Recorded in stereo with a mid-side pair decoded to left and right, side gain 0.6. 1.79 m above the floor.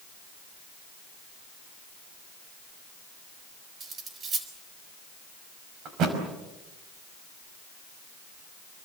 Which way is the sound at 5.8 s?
60° right.